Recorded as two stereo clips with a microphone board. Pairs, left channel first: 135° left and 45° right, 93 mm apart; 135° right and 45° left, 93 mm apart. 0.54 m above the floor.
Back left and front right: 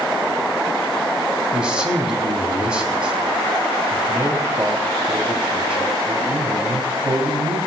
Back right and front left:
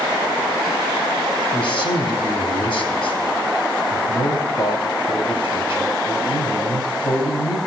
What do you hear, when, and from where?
1.5 s a man speaking: 125° right, 3.5 m